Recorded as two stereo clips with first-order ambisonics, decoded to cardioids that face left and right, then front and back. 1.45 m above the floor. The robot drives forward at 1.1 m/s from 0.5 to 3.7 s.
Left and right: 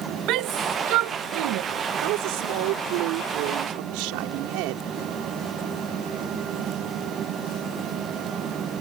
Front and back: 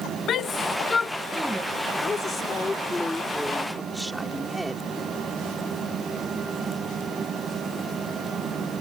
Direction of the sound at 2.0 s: 70° right.